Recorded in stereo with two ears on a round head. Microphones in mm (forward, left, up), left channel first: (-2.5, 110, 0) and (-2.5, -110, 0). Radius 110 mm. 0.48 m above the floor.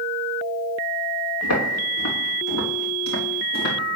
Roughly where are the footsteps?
Left.